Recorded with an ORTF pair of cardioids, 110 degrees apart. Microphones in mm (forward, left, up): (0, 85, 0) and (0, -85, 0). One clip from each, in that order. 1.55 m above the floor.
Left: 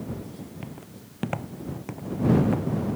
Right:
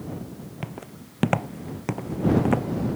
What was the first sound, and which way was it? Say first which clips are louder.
Footsteps: right 4 dB; 40° right.